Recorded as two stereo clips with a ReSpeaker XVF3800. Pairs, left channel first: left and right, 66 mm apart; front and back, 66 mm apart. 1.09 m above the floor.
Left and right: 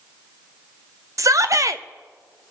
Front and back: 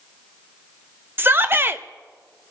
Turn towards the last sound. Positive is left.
turn(degrees=-120)